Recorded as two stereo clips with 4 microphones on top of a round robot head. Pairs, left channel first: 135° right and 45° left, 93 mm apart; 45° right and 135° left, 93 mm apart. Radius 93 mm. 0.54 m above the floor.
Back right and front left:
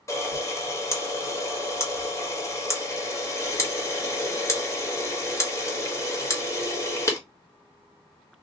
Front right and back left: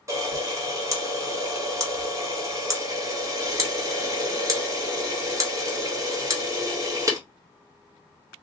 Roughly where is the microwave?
No microwave in this recording.